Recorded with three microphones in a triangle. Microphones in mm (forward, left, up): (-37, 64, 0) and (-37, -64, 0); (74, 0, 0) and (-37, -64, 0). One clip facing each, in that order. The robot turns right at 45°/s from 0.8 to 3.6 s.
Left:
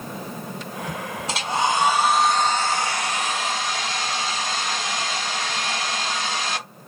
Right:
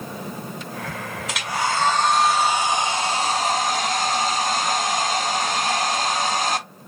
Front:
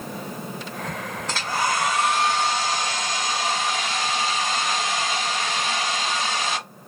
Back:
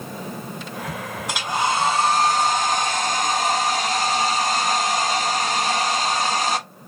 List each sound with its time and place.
1.3 s a hair dryer: 135° left, 0.6 m; by 6.6 s 120° right, 0.6 m